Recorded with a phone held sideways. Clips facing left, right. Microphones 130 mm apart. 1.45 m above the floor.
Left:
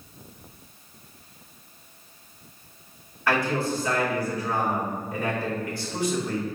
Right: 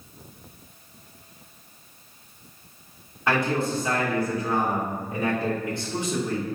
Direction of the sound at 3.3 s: 20° right (ahead or behind).